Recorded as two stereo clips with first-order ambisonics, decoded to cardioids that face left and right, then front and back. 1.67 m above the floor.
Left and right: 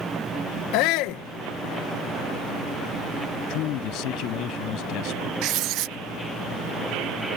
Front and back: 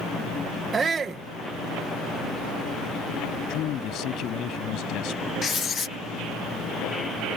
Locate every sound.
0.7 s a shout: 110° left
3.5 s a man speaking: 50° left
5.4 s writing: 75° right